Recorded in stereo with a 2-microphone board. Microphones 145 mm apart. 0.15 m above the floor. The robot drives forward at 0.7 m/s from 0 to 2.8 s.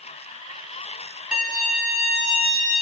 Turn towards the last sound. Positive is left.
turn(degrees=-5)  # may be behind; listen again after turning